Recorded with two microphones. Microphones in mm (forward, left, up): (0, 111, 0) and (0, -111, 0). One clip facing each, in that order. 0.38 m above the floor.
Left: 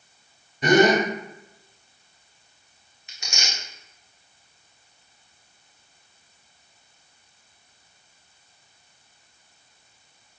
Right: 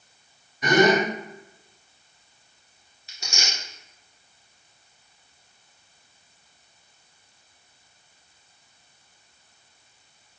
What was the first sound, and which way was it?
A gasp, 30° left (ahead or behind).